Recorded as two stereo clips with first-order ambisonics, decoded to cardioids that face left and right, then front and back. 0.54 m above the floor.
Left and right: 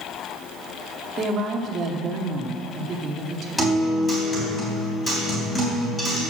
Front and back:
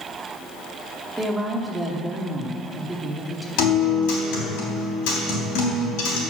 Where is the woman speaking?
95° right, 0.9 m.